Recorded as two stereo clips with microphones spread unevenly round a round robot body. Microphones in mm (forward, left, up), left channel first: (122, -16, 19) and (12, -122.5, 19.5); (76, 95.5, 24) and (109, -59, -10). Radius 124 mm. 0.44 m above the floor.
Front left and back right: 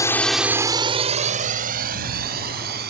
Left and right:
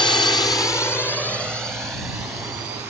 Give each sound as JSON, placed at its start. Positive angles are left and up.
{"t": 0.0, "sound": "a drone", "azimuth_deg": 70}